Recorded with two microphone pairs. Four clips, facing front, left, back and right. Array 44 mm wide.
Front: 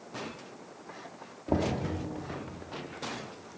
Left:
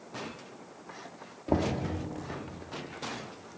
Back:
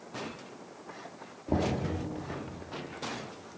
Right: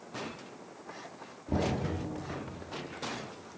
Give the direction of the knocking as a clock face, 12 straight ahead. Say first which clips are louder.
Left 3 dB, front 1 dB; 10 o'clock.